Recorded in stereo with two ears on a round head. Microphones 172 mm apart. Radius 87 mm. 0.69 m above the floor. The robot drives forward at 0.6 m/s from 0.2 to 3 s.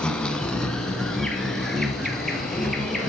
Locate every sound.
0.0 s an insect: 5° left (ahead or behind), 1.0 m; by 3.1 s centre (ahead or behind), 2.5 m